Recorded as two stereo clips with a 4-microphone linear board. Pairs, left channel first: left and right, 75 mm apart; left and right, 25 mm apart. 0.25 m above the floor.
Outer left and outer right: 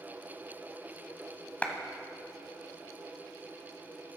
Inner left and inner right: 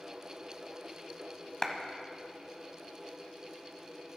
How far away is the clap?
About 1.3 m.